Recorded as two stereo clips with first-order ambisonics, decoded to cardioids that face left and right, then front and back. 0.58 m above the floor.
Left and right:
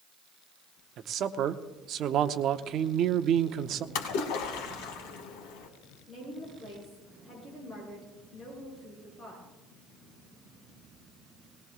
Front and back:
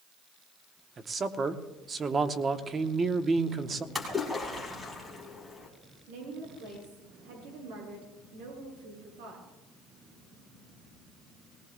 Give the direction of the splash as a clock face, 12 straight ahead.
9 o'clock.